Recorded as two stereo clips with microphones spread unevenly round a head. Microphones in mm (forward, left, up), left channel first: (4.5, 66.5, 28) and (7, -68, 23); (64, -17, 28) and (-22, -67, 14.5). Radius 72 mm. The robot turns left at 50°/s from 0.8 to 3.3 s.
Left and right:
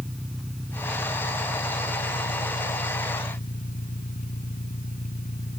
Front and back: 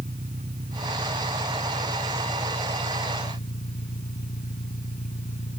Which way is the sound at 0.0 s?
Straight behind.